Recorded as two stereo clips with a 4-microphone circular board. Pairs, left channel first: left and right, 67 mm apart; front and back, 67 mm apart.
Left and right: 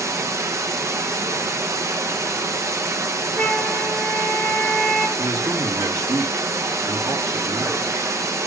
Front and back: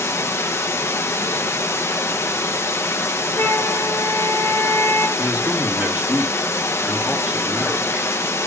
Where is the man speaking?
110° right, 2.5 m.